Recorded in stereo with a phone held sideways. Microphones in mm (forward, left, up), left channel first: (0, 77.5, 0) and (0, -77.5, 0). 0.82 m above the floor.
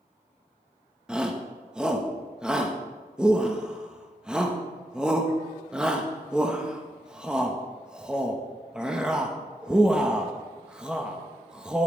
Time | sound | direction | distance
1.1 | a shout | 5° right (ahead or behind) | 1.1 m